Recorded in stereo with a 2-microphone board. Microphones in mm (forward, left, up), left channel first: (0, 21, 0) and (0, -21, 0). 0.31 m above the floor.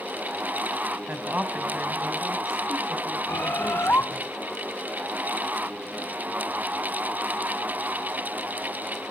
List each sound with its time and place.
1.1 s a woman speaking: 45° right (ahead or behind), 2.5 m; by 4.3 s centre (ahead or behind), 5 m
3.3 s a bird: 60° left (ahead or behind), 0.7 m